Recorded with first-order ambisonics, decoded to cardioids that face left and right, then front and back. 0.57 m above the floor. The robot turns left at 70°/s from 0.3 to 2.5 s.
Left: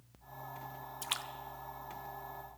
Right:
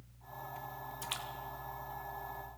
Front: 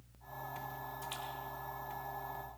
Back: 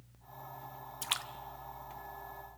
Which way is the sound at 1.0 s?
170° left.